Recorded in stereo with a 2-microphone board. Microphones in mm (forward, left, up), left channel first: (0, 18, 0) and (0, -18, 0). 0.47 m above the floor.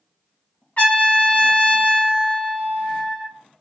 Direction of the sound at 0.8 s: 35° left (ahead or behind).